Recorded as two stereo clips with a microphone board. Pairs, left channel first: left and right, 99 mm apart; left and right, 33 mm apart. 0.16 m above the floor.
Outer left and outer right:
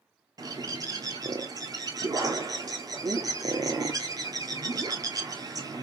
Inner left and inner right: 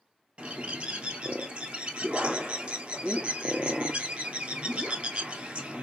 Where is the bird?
40° right (ahead or behind), 0.7 m.